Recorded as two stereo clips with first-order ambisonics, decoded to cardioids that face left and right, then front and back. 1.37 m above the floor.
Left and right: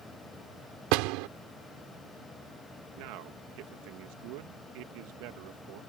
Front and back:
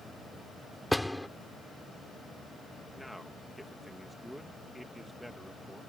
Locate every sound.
0.9 s a door slam: 85° right
3.0 s a man speaking: 85° right